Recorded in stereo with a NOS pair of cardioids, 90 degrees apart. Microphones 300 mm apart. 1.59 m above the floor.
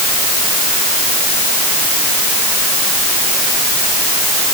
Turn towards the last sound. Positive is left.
No sound to turn to.